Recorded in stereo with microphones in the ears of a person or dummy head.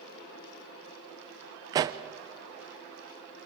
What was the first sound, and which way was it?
A pop, 20° right (ahead or behind).